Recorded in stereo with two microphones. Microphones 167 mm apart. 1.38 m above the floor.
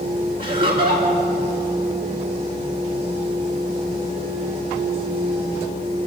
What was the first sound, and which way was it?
Laughter, 55° right (ahead or behind).